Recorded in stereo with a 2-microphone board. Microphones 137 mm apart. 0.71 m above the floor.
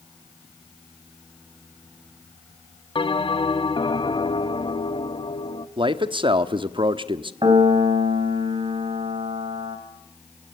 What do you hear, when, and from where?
3.0 s a bell: 40° left (ahead or behind), 1.1 m
5.8 s a man speaking: 40° right (ahead or behind), 1.1 m
7.4 s a piano: 35° right (ahead or behind), 3.5 m